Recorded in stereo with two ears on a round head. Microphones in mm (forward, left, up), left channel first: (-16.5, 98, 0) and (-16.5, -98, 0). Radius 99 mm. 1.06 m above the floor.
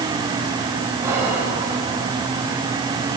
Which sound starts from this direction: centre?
Whispering, at 1.0 s.